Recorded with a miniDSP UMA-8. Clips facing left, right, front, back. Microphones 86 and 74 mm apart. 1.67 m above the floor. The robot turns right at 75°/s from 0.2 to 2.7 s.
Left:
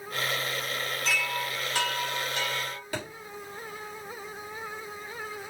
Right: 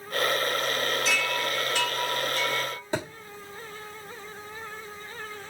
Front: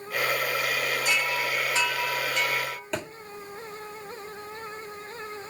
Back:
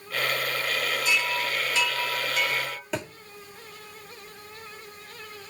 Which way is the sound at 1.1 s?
5° right.